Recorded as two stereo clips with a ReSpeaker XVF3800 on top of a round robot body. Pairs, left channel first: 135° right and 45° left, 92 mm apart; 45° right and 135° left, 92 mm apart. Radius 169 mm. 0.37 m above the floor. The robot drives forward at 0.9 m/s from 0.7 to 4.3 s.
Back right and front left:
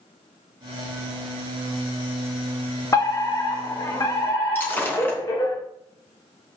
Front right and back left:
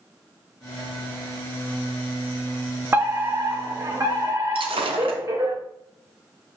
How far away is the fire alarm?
About 2.5 m.